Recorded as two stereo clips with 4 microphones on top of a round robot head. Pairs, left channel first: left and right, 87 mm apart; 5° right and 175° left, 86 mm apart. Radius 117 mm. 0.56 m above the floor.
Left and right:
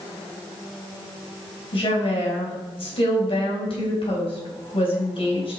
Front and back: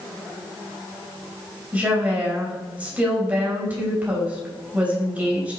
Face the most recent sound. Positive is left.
turn(degrees=100)